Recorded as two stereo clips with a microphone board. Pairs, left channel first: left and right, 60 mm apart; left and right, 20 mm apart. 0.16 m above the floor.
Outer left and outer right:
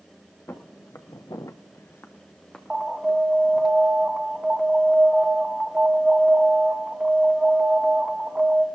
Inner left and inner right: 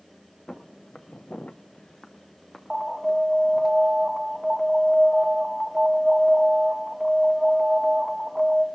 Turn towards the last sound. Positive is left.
turn(degrees=-15)  # may be behind; listen again after turning